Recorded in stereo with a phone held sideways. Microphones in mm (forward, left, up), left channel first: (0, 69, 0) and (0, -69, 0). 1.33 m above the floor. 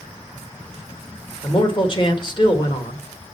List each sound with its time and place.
1.4 s a man speaking: 35° left (ahead or behind), 1.7 m